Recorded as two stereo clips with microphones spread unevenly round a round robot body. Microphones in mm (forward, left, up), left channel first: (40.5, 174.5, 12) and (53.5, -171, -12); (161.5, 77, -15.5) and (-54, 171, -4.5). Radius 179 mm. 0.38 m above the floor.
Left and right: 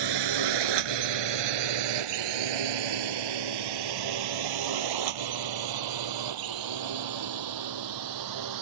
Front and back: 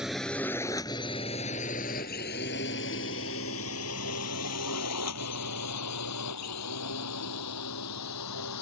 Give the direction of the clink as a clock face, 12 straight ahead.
I don't hear a clink.